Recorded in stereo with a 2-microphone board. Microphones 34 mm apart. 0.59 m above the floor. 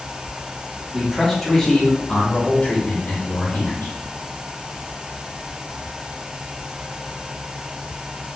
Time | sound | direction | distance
0.9 | a man speaking | 10° right (ahead or behind) | 0.8 m